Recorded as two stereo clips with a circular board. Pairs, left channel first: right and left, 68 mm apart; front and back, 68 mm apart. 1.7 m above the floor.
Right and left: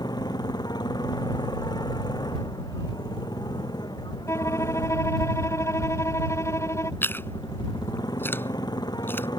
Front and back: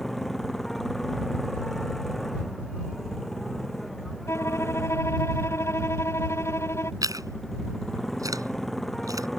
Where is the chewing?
150° right.